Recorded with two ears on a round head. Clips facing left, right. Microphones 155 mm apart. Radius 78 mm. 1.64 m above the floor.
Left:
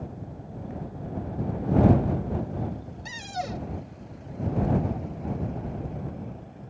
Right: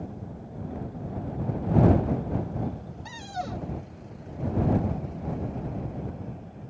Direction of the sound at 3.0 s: 25° left (ahead or behind).